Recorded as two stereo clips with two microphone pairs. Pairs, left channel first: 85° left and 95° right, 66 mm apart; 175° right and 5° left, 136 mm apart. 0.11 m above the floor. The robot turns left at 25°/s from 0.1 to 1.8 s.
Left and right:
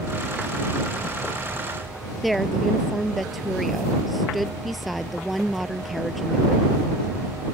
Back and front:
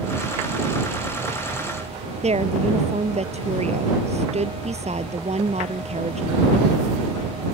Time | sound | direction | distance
2.2 | a woman speaking | 5° right | ?